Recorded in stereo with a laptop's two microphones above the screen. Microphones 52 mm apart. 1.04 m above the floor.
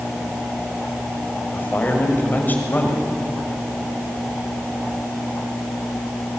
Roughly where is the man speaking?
Left.